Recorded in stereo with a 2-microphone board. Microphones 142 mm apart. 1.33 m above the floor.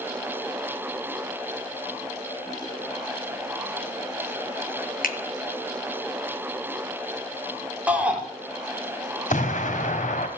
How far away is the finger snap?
About 1.2 m.